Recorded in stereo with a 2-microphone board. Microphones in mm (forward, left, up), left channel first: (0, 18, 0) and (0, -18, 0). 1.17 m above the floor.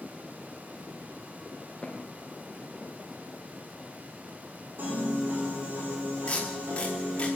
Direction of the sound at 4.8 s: 75° right (ahead or behind).